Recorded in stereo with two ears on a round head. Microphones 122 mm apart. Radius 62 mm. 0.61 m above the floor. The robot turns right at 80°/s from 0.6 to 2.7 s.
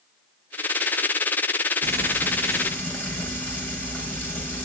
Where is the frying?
55° right, 6 m; by 4.7 s 15° left, 6 m.